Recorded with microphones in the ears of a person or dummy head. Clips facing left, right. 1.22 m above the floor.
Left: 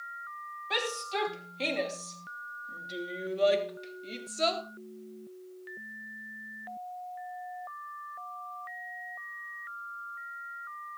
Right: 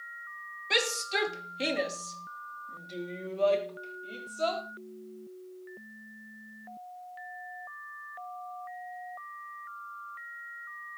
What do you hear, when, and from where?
0.7 s a shout: 35° right (ahead or behind), 3 m; by 4.6 s 35° left (ahead or behind), 4 m